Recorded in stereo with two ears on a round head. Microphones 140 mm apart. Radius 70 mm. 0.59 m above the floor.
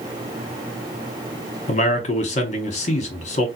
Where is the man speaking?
45° left (ahead or behind), 0.9 m.